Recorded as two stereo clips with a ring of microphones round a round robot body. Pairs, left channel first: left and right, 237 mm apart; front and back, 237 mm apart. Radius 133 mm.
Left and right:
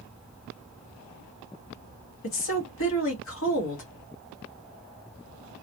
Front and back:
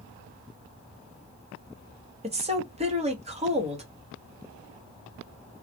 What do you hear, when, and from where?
2.2 s a woman speaking: 120° left, 1.4 m